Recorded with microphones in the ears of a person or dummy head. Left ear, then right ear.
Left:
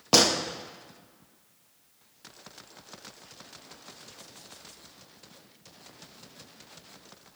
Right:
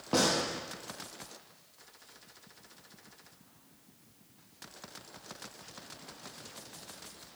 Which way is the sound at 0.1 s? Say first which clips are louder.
Left 7 dB; 65° left (ahead or behind).